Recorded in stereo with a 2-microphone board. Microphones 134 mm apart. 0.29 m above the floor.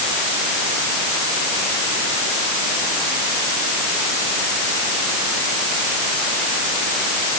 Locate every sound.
Only background noise.